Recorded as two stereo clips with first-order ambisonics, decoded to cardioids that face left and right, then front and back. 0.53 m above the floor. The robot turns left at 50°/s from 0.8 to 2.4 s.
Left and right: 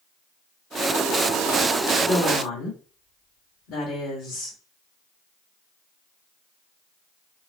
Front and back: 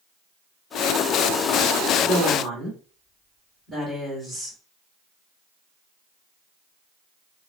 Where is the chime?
No chime in this recording.